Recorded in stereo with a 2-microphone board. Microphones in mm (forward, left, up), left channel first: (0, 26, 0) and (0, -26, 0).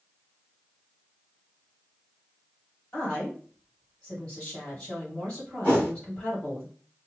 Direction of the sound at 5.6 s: 25° left (ahead or behind).